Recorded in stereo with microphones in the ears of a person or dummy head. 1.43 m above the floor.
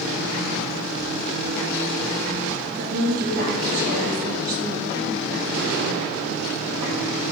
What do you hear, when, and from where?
2.8 s a woman speaking: 45° right (ahead or behind), 0.7 m